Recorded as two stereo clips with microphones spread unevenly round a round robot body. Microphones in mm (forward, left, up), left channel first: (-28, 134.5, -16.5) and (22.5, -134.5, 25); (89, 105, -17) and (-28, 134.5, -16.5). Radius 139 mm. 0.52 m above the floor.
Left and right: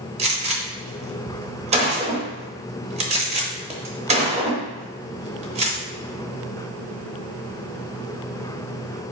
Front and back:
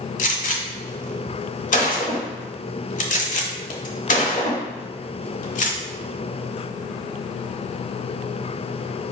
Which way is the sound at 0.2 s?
10° right.